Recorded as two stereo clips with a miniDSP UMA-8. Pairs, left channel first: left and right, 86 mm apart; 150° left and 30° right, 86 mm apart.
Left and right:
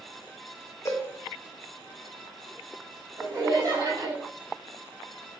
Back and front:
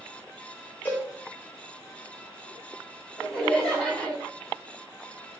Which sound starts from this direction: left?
A cowbell, at 0.8 s.